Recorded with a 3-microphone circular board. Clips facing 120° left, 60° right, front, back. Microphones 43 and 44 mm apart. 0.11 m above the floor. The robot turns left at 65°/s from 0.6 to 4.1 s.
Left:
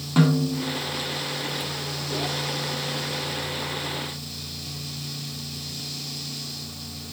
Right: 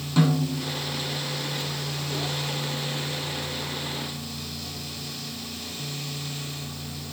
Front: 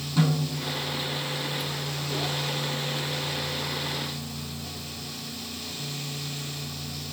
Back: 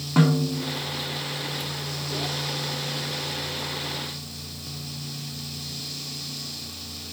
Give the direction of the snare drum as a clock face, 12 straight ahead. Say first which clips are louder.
Left 2 dB, back 5 dB; 6 o'clock.